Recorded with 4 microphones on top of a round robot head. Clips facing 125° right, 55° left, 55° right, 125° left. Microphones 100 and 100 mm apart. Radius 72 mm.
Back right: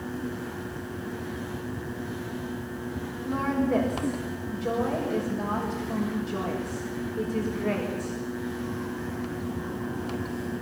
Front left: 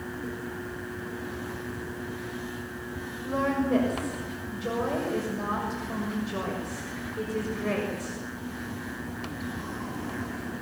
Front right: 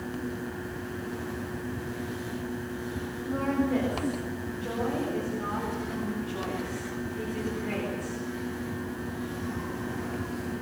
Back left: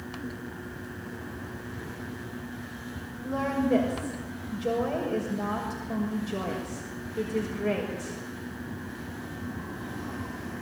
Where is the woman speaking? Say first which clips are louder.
Even, back left 1 dB; 140° left, 6.5 m.